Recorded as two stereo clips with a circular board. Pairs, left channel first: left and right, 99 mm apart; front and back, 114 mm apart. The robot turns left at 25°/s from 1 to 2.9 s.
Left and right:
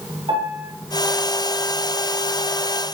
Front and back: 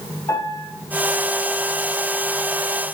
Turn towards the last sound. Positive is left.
turn(degrees=-110)